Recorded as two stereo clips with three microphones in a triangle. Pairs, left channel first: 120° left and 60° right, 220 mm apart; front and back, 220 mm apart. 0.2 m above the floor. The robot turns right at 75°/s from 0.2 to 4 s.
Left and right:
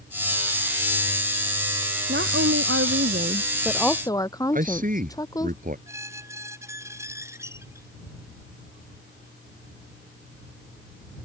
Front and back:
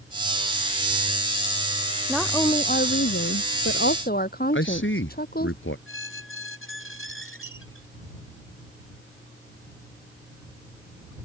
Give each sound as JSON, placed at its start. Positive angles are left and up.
{"t": 2.1, "sound": "a woman speaking", "azimuth_deg": -95}
{"t": 4.5, "sound": "a man speaking", "azimuth_deg": -15}
{"t": 5.9, "sound": "a squeak", "azimuth_deg": 15}